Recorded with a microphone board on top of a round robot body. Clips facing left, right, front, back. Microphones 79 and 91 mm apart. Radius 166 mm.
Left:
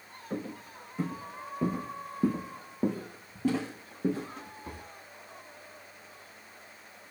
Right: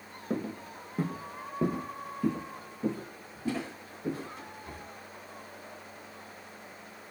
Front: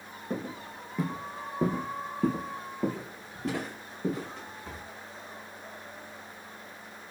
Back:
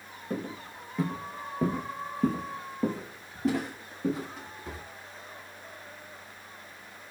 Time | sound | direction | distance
0.3 | footsteps | 80° right | 1.2 m